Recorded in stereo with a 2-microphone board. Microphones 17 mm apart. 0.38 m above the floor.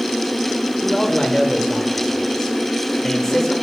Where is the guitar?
No guitar in this recording.